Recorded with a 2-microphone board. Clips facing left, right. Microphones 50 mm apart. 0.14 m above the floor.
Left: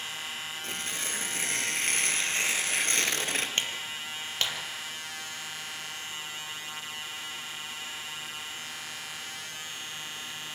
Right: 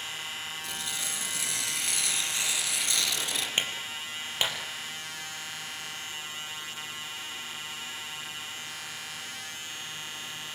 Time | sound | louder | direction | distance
0.6 | tearing paper | left 1 dB | 40° left (ahead or behind) | 2.5 m
3.6 | a clap | right 1 dB | 15° right (ahead or behind) | 3.5 m